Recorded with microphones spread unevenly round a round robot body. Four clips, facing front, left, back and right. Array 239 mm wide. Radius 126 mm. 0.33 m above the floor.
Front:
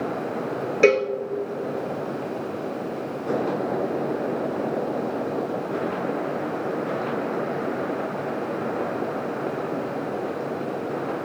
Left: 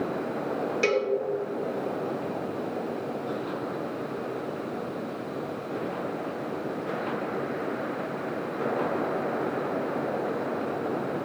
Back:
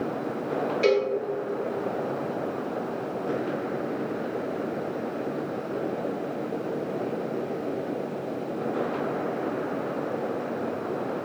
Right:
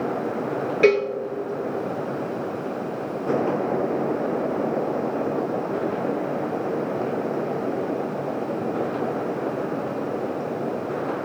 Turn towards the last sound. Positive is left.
turn(degrees=-25)